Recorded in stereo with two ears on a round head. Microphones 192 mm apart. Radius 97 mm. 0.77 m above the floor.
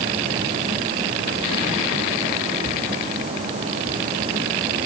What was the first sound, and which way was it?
Only background noise.